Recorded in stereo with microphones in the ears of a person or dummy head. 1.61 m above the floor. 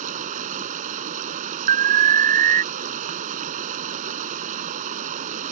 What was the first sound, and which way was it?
Running water, 45° right (ahead or behind).